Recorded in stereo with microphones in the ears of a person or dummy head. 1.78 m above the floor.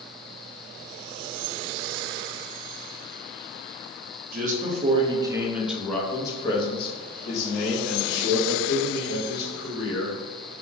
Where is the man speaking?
45° right (ahead or behind), 1.0 m; by 10.5 s 70° left (ahead or behind), 2.5 m.